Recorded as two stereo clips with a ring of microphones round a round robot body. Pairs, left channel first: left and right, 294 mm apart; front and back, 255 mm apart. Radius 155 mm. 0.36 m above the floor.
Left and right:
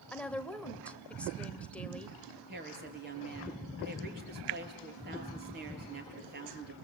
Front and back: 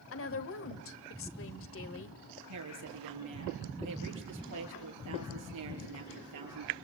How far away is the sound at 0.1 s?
About 1.5 m.